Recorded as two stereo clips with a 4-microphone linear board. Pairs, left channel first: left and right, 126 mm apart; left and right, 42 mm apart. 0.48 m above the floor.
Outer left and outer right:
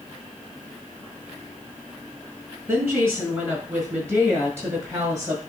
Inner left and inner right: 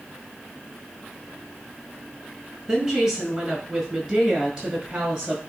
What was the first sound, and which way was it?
A woman speaking, 15° right (ahead or behind).